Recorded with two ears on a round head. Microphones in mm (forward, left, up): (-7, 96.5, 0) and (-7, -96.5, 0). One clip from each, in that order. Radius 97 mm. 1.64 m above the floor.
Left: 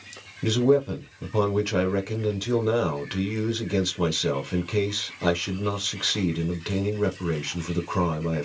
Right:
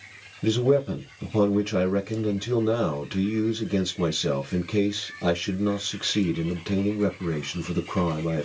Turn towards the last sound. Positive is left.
turn(degrees=25)  # may be behind; listen again after turning